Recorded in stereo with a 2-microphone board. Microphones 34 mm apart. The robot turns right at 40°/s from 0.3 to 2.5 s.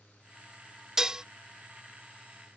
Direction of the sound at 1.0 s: 15° right (ahead or behind).